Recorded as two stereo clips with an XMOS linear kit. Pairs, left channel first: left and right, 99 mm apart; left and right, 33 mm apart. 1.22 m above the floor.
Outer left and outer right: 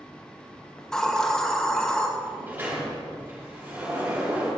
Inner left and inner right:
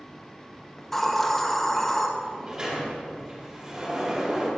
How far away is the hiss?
About 1.7 m.